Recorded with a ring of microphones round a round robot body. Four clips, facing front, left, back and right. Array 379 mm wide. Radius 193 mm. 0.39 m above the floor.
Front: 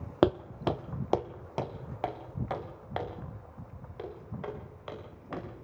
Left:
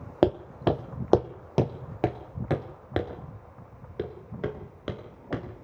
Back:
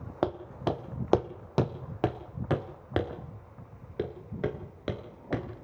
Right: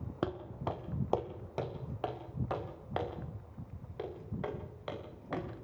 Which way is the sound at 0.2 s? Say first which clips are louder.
Left 13 dB, front 4 dB; 60° left.